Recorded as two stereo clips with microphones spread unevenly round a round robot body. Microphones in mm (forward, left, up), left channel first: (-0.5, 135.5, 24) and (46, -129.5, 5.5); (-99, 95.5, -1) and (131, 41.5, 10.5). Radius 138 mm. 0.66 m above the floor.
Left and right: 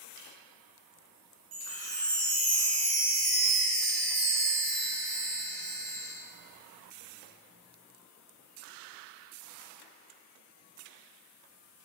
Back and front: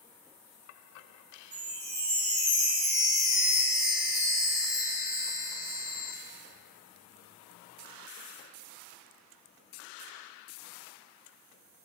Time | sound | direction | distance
1.5 | a chime | 45° right | 3.5 m